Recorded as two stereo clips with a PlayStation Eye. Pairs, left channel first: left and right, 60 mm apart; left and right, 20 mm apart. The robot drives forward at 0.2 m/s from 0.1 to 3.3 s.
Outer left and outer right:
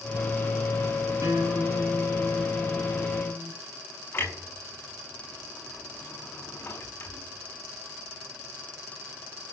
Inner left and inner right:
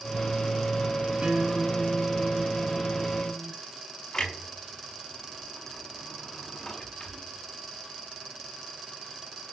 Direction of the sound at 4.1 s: 35° left (ahead or behind).